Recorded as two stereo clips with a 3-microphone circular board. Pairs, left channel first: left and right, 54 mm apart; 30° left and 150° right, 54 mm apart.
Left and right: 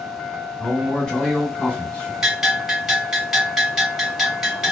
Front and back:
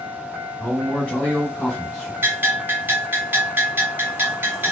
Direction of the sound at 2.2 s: 165° right.